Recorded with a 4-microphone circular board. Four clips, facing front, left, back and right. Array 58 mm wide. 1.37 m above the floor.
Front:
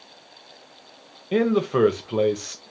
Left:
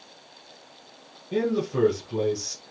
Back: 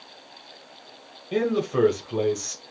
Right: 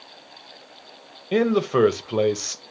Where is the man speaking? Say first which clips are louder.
Right 6 dB, front 3 dB; 60° right, 0.8 m.